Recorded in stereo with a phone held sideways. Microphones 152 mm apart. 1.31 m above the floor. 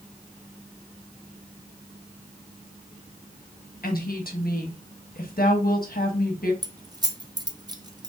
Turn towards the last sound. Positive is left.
turn(degrees=-25)  # may be behind; listen again after turning